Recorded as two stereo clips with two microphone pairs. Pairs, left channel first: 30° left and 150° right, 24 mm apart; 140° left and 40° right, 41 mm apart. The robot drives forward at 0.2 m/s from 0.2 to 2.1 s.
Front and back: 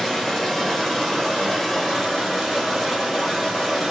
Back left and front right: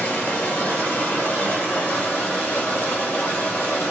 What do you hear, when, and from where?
0.0 s running water: 115° left, 1.4 m; by 3.9 s 130° left, 1.6 m